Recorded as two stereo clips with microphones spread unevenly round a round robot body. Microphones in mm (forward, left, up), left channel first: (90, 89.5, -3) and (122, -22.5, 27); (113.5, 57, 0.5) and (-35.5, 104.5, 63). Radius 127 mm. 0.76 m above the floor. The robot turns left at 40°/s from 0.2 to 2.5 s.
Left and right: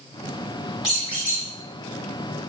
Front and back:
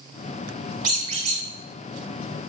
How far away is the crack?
No crack in this recording.